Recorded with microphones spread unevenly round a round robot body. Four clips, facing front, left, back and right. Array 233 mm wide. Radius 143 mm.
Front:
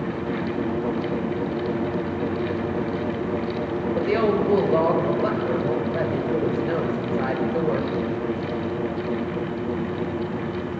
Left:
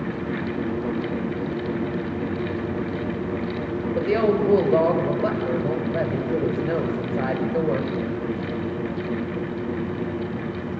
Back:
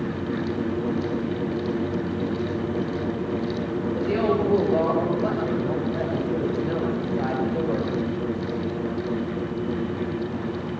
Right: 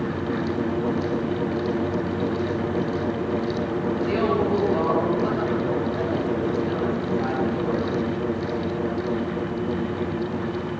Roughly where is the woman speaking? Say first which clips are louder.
Left 4 dB, front 2 dB; ahead left.